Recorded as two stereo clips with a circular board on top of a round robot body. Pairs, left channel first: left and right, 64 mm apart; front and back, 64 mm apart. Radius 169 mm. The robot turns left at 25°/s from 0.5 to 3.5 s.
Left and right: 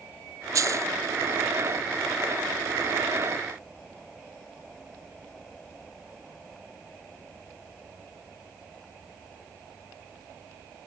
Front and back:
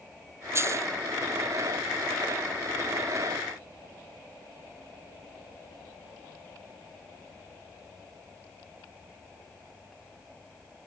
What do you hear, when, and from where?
0.6 s a dropped coin: 130° right; by 0.9 s 140° right